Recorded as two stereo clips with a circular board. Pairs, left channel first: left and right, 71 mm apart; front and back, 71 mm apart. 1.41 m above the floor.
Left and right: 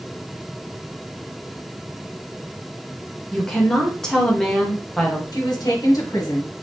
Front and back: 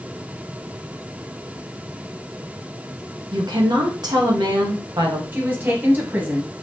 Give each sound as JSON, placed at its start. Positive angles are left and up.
{"t": 3.3, "sound": "a woman speaking", "azimuth_deg": 170, "distance_m": 1.3}
{"t": 5.3, "sound": "a woman speaking", "azimuth_deg": 120, "distance_m": 1.4}